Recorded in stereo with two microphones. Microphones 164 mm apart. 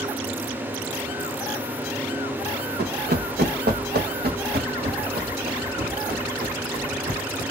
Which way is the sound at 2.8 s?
80° right.